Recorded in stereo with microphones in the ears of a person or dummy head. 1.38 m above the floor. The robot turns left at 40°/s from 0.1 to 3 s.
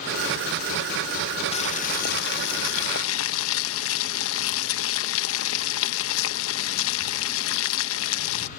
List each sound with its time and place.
1.5 s boiling: 145° left; by 8.5 s 85° left